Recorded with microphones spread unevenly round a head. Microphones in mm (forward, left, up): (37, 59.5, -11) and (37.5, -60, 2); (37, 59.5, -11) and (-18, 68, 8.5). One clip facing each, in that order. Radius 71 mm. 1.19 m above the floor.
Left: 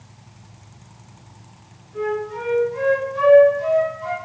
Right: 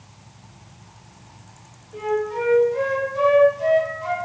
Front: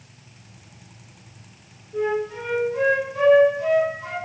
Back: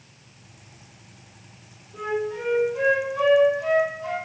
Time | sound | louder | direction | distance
1.9 | a flute | right 1 dB, front 3 dB | 45° right | 1.6 m